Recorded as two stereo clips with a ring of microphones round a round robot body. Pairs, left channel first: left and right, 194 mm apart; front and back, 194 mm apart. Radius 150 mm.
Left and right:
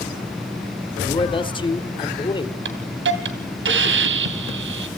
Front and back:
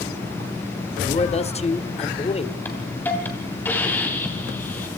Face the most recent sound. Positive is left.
turn(degrees=-80)